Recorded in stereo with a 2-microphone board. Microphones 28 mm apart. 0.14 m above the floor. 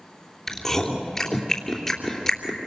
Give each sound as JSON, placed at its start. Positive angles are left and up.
{"t": 0.5, "sound": "chewing", "side_deg": 20, "distance_m": 3.0}